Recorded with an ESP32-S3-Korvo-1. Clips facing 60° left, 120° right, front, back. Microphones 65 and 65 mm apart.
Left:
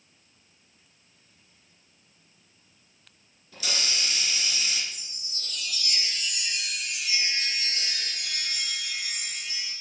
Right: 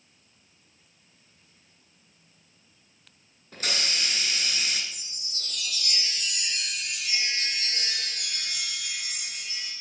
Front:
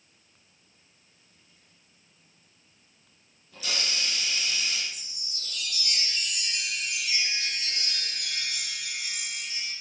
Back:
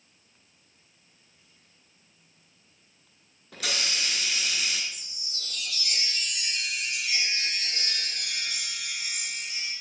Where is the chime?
160° right, 7 m.